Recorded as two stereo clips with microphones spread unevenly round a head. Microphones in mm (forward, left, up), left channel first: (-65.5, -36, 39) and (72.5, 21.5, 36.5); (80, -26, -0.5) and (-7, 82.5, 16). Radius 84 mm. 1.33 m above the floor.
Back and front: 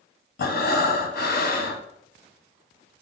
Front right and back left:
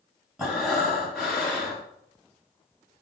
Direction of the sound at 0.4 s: 140° right.